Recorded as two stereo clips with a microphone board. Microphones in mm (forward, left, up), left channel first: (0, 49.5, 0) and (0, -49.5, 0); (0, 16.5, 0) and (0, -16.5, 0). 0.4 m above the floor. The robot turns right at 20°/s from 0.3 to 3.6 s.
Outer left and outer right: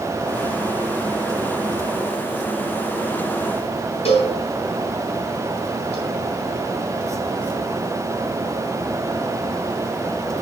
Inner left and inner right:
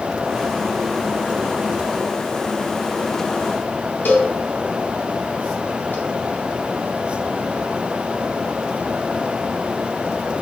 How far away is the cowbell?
About 3.5 m.